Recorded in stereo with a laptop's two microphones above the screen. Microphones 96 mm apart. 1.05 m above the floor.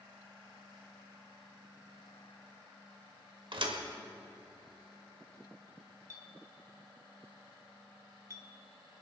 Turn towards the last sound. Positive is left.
turn(degrees=-35)  # may be behind; listen again after turning